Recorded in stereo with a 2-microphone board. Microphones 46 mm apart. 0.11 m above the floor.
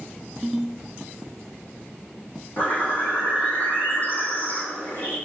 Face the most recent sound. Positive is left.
turn(degrees=40)  # may be behind; listen again after turning